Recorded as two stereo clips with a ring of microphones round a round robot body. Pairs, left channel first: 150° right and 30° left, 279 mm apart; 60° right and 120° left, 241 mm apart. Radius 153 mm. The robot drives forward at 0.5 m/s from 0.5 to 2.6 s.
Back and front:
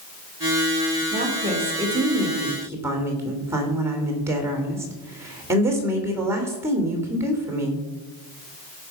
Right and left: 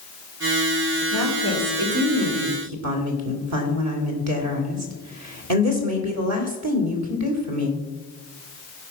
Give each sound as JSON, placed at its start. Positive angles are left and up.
{"t": 1.1, "sound": "a woman speaking", "azimuth_deg": 95, "distance_m": 2.5}